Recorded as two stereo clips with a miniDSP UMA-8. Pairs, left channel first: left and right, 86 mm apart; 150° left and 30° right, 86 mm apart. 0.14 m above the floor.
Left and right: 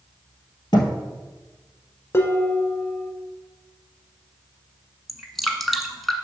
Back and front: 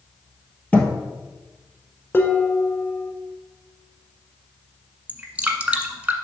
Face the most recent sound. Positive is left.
turn(degrees=5)